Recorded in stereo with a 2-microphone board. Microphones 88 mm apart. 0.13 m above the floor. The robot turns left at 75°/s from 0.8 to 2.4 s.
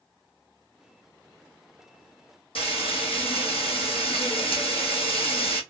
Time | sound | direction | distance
2.5 | frying | 80° left | 1.6 m